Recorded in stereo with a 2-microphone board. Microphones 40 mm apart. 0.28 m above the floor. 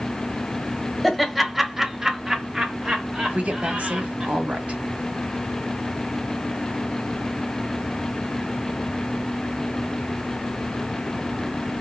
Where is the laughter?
Centre (ahead or behind), 1.1 m; by 4.3 s 25° right (ahead or behind), 1.6 m.